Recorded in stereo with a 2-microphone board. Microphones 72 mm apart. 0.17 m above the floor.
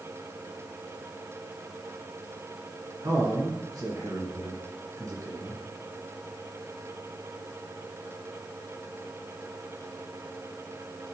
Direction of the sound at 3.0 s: 50° right (ahead or behind).